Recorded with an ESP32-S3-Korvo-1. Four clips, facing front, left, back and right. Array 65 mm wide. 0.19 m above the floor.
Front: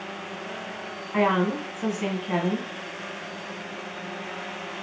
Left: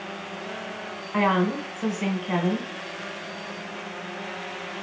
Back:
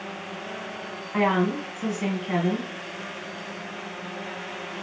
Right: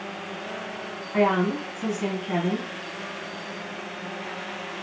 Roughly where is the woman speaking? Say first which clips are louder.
Right 1 dB, even; ahead left.